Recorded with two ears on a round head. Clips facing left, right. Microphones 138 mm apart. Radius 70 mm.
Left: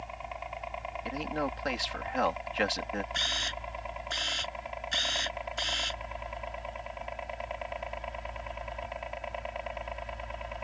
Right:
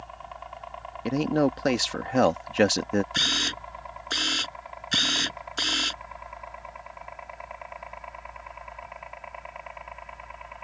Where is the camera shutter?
55° right (ahead or behind).